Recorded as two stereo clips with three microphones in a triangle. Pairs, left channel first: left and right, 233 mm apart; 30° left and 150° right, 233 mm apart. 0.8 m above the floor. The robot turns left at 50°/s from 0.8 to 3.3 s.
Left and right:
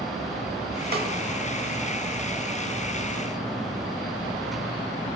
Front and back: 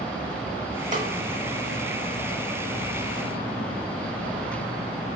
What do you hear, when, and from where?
0.9 s a snare drum: 110° right, 0.8 m; by 1.1 s 115° right, 0.8 m